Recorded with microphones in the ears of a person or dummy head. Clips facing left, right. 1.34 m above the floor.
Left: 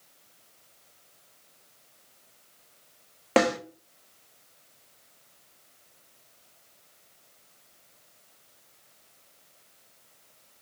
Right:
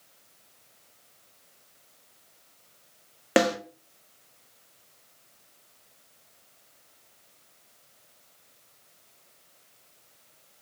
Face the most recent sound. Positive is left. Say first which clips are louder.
# even
turn(degrees=-15)  # may be behind; listen again after turning